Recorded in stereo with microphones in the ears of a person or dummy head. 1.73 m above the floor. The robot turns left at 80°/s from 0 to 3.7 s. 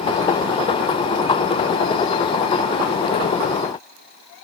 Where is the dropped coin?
No dropped coin in this recording.